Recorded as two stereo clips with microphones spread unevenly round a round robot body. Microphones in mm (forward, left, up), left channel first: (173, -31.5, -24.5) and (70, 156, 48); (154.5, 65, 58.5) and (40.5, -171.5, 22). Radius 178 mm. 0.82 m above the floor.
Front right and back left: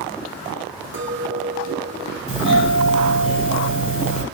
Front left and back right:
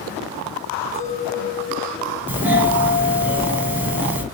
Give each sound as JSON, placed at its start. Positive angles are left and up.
{"t": 0.9, "sound": "a clink", "azimuth_deg": 120, "distance_m": 1.5}
{"t": 2.3, "sound": "a doorbell", "azimuth_deg": -45, "distance_m": 1.3}